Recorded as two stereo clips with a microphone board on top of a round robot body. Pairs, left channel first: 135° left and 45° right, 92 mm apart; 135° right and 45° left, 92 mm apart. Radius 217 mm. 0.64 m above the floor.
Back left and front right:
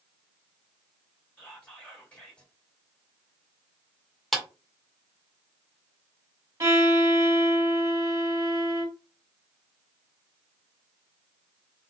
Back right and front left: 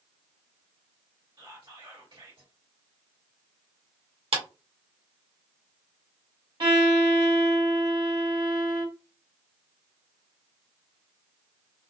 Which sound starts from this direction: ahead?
A violin, at 6.6 s.